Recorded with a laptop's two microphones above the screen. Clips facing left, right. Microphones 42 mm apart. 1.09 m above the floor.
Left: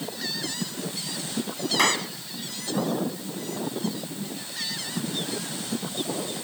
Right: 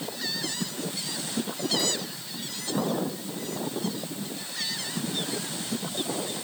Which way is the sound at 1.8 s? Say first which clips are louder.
Left 7 dB; 65° left (ahead or behind).